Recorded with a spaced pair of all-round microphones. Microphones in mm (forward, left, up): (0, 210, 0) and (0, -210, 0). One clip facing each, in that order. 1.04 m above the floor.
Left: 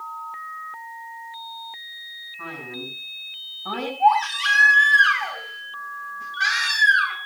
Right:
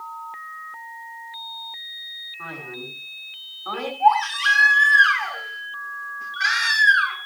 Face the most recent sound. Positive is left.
turn(degrees=45)  # may be behind; listen again after turning